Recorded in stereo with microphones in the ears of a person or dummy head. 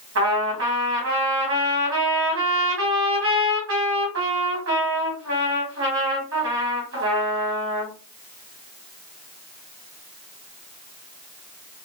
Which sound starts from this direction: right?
A trumpet, at 0.1 s.